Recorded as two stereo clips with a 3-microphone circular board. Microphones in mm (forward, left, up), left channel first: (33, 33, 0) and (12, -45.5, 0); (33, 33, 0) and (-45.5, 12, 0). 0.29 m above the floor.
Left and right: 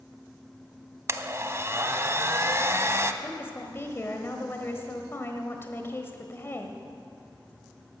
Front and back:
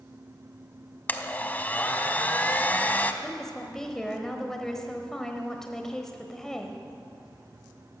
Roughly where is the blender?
Ahead right.